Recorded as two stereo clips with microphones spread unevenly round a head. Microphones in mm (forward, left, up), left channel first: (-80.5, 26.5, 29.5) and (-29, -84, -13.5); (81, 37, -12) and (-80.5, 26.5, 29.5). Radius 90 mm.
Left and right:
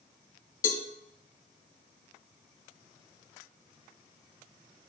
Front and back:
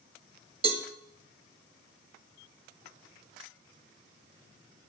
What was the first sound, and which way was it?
A cowbell, 130° left.